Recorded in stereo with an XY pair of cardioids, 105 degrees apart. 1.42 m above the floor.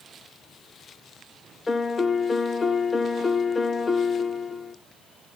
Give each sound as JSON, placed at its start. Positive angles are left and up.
{"t": 1.7, "sound": "a piano", "azimuth_deg": 25, "distance_m": 0.8}